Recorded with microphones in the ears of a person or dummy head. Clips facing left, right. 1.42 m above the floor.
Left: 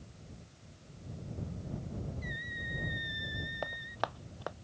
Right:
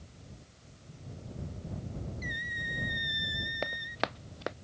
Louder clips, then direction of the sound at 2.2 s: Right 2 dB; 40° right (ahead or behind).